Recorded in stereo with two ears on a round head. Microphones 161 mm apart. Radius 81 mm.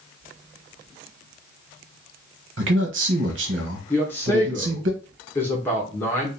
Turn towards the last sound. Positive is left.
turn(degrees=10)  # may be behind; listen again after turning